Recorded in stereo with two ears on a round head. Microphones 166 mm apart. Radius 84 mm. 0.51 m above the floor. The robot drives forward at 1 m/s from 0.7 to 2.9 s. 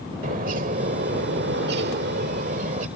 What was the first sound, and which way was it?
A bird, 45° right (ahead or behind).